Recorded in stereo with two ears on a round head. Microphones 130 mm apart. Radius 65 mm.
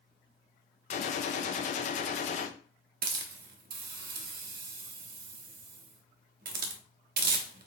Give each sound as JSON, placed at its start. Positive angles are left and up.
{"t": 0.9, "sound": "a gunshot", "side_deg": 50, "distance_m": 0.6}
{"t": 3.0, "sound": "a hiss", "side_deg": -65, "distance_m": 0.7}